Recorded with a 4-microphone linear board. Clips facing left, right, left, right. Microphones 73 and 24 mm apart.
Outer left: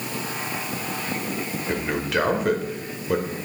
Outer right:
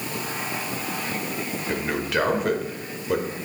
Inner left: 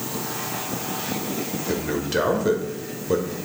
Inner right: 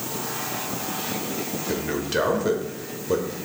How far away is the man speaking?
About 1.0 m.